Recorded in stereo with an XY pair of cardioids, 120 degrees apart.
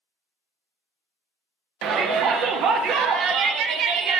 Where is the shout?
70° right, 0.6 m.